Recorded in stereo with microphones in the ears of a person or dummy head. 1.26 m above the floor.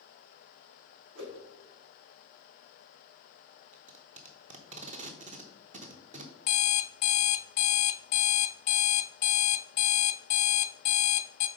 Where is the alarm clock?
45° left (ahead or behind), 0.6 m.